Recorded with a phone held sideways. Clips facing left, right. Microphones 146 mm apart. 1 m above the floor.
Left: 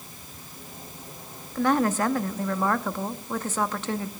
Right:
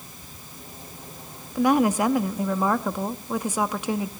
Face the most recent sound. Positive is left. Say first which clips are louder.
# right 3 dB
turn(degrees=-10)  # may be behind; listen again after turning